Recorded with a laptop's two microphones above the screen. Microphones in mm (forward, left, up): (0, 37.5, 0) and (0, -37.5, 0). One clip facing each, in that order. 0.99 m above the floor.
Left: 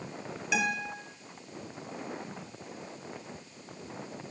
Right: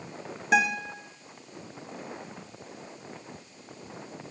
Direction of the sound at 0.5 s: 45° right (ahead or behind).